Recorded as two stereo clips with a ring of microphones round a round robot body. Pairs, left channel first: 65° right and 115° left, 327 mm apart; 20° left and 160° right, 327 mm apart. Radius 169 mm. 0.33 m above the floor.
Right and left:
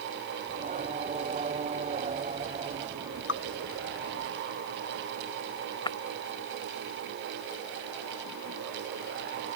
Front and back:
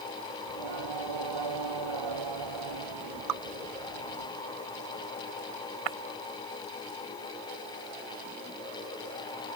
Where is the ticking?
I don't hear ticking.